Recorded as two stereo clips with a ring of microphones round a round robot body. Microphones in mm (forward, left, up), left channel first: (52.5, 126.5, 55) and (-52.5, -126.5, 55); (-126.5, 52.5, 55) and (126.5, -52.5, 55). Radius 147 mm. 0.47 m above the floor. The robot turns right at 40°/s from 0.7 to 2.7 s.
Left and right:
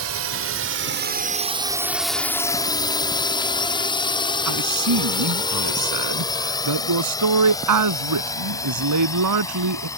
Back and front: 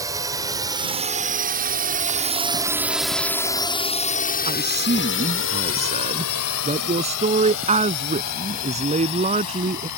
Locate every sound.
0.0 s a drone: 100° right; by 10.0 s 145° left
4.5 s a man speaking: 90° right